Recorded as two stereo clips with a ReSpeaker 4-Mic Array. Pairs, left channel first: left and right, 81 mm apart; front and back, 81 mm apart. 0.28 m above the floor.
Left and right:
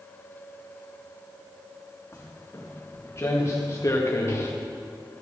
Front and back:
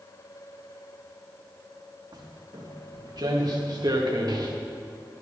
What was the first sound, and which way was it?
Footsteps, 150° left.